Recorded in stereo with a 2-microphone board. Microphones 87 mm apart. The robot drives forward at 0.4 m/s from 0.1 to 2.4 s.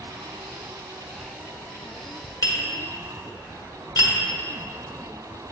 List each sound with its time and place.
2.4 s tapping: 50° left (ahead or behind), 1.3 m